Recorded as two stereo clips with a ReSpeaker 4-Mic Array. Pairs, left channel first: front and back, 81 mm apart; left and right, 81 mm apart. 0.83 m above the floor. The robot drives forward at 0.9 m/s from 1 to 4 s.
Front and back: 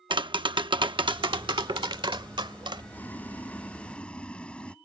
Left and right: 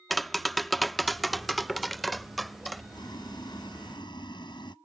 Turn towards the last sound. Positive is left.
turn(degrees=75)